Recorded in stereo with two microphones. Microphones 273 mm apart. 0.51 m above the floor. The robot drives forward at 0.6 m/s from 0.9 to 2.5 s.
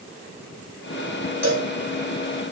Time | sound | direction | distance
1.4 | a cowbell | 70° right (ahead or behind) | 1.5 m